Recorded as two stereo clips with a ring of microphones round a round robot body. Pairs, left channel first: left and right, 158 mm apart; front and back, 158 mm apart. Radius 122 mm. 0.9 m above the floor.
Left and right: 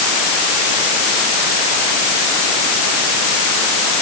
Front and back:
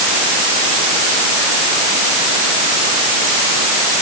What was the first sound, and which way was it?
Only background noise.